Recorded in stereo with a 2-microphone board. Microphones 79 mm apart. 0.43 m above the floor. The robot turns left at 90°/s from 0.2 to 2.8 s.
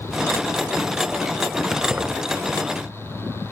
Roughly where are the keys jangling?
Centre.